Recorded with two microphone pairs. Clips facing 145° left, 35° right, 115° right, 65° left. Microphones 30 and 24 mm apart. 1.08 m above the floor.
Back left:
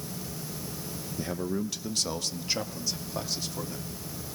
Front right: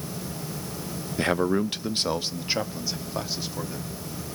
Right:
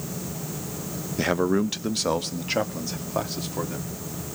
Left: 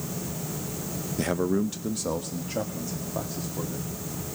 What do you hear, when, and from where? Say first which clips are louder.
1.2 s a man speaking: front right 9 dB, right 3 dB; 55° right, 0.6 m; by 4.0 s 110° right, 2 m